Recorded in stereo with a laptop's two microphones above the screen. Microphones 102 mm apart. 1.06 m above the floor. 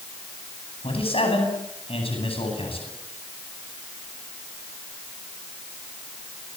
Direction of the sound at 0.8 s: 75° left (ahead or behind).